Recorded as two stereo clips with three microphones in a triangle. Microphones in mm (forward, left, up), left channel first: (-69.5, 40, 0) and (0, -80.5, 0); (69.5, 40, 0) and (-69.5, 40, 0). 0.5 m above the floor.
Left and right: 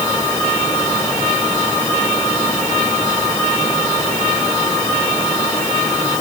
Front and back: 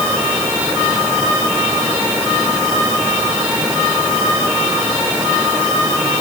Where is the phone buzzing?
No phone buzzing in this recording.